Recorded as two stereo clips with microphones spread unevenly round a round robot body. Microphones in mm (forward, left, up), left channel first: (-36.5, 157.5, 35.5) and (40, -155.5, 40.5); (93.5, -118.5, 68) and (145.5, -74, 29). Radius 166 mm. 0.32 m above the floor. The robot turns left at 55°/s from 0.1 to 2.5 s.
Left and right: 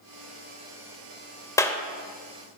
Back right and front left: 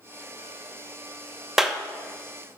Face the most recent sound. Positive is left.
turn(degrees=-20)